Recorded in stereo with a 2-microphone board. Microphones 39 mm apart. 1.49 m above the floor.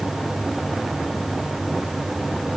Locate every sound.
Only background noise.